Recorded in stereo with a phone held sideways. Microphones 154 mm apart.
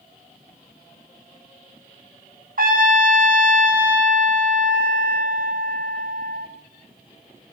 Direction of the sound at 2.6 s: 65° right (ahead or behind).